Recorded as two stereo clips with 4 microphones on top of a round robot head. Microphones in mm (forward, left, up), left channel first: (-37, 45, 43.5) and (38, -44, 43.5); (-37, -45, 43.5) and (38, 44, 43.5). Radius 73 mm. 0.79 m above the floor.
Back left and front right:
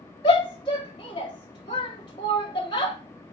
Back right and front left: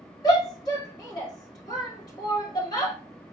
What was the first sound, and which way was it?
A shout, 175° left.